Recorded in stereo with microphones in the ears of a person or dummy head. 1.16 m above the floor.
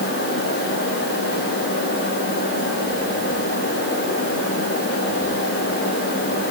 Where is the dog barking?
I don't hear a dog barking.